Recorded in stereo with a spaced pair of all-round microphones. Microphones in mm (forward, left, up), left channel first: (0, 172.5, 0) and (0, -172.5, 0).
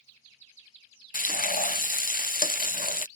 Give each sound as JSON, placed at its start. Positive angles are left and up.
{"t": 1.1, "sound": "frying", "side_deg": 25}